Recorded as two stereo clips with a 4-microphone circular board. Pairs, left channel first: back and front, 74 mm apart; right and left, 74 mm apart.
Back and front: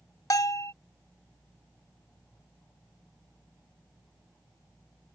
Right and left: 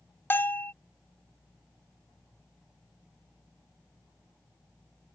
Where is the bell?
145° right.